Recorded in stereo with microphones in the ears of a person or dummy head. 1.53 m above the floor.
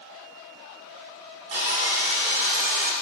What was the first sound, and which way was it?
Sawing, 25° right (ahead or behind).